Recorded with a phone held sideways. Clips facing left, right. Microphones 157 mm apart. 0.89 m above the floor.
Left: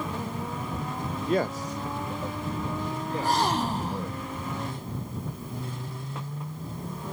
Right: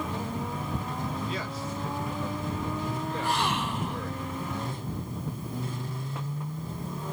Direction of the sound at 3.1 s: 40° left (ahead or behind).